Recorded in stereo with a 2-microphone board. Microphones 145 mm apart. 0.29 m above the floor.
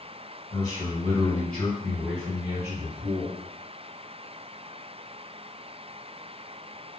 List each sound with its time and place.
0.5 s a man speaking: 25° left (ahead or behind), 1.8 m; by 3.4 s 25° right (ahead or behind), 2.5 m